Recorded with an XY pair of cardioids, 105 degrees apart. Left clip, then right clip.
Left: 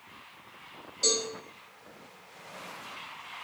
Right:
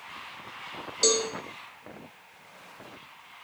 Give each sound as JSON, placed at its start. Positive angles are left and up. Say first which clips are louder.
{"t": 1.0, "sound": "a cowbell", "louder": "right 3 dB", "azimuth_deg": -60, "distance_m": 1.0}